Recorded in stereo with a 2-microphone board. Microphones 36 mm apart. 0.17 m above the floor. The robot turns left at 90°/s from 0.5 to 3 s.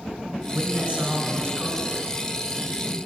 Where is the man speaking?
20° right (ahead or behind), 1.1 m; by 2.0 s centre (ahead or behind), 1.1 m.